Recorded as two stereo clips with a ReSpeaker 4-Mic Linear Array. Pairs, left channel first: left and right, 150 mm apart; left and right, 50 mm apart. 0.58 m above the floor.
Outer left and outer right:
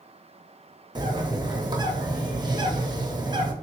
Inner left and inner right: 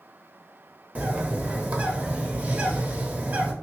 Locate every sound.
0.9 s a bird: 30° right (ahead or behind), 0.6 m